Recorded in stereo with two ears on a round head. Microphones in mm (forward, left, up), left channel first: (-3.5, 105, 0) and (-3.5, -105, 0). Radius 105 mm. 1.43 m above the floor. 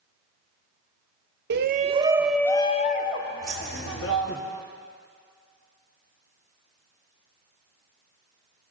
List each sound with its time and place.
1.5 s a shout: 45° right (ahead or behind), 0.6 m; by 4.4 s 60° left (ahead or behind), 1.3 m
3.4 s keys jangling: 20° right (ahead or behind), 3 m